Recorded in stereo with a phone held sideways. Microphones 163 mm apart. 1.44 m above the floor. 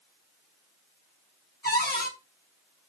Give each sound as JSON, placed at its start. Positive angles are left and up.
{"t": 1.6, "sound": "a cupboard door", "side_deg": 75, "distance_m": 1.0}